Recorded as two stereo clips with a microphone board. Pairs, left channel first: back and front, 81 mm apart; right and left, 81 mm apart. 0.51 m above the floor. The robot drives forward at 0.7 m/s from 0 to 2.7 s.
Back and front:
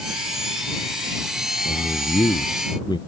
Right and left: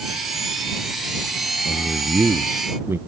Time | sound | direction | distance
1.6 | a man speaking | 150° left | ?